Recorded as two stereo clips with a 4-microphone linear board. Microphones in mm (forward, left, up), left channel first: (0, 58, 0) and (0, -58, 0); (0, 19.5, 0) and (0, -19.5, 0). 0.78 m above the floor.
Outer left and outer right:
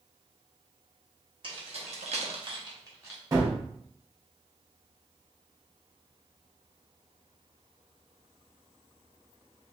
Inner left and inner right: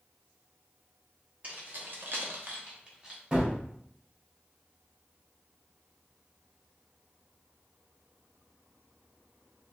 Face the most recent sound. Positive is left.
turn(degrees=-30)  # may be behind; listen again after turning